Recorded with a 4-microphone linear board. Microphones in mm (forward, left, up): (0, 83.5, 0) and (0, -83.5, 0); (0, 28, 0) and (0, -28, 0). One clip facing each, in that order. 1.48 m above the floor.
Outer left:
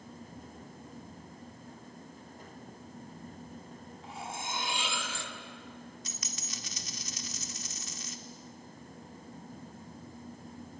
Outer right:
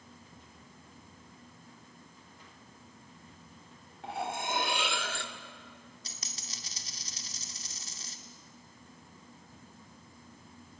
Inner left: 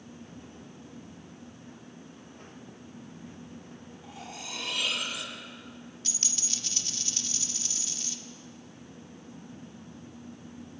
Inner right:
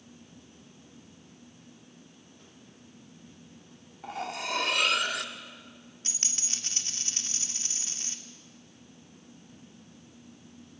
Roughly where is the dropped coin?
Right.